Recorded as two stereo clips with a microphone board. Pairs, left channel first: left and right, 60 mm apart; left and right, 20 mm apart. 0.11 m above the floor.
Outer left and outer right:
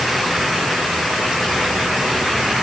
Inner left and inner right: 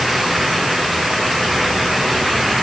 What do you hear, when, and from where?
Only background noise.